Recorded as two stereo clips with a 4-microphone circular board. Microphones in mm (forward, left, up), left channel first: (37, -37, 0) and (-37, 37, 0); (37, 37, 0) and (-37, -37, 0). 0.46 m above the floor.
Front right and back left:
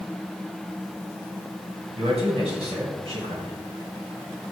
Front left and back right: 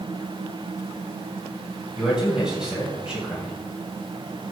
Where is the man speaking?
145° left, 3 m.